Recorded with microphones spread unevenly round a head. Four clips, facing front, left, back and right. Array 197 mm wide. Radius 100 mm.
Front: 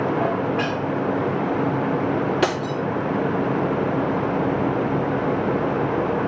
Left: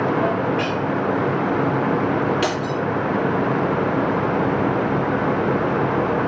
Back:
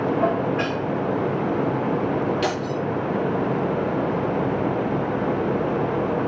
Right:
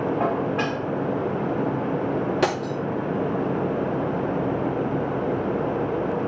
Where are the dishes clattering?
50° right, 7.5 m.